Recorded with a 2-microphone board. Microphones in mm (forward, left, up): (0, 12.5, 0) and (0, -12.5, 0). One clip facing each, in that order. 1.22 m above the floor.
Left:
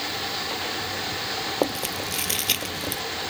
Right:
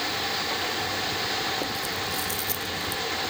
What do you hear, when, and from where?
1.6 s chewing: 65° left (ahead or behind)